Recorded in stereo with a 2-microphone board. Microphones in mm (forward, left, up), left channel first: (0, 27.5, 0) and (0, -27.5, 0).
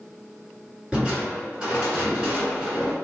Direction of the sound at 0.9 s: 20° right (ahead or behind).